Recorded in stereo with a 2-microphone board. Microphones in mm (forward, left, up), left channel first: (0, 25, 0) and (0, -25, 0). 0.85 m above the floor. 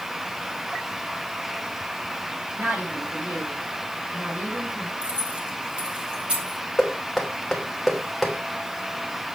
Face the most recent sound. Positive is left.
turn(degrees=0)  # may be behind; listen again after turning